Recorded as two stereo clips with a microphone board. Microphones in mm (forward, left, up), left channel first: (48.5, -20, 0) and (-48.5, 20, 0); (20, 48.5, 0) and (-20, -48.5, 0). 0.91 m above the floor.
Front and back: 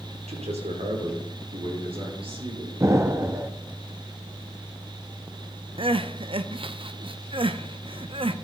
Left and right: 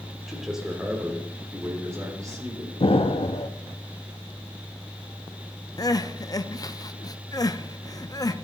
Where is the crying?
120° left, 0.5 m.